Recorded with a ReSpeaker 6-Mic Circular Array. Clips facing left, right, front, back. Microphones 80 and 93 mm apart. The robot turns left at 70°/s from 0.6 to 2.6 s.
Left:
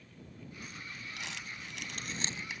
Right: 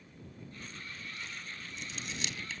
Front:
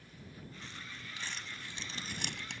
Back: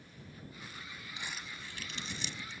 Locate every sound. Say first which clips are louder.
1.2 s crumpling: left 1 dB, even; 110° left; by 2.6 s 10° left